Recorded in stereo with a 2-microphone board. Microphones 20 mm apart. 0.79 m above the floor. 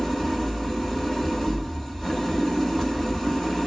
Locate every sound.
0.0 s an engine running: 20° left (ahead or behind), 2 m